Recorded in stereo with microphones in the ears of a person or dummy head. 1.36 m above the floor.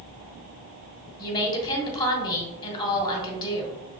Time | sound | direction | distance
1.2 | a woman speaking | 20° left (ahead or behind) | 1.5 m